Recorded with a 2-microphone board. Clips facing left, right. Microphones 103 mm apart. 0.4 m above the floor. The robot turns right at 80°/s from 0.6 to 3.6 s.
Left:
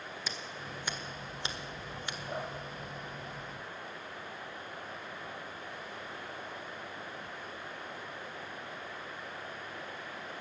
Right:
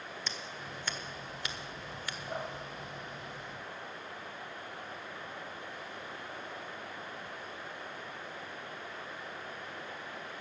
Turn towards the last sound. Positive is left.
turn(degrees=80)